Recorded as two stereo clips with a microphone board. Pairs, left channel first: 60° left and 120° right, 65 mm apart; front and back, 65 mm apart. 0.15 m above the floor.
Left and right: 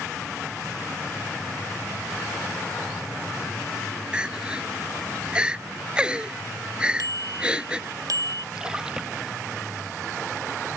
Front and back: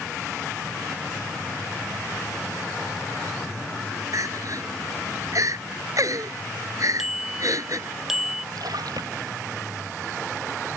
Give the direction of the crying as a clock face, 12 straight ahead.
6 o'clock.